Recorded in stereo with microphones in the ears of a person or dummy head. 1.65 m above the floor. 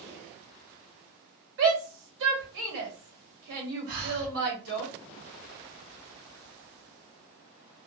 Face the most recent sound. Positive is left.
turn(degrees=-45)  # may be behind; listen again after turning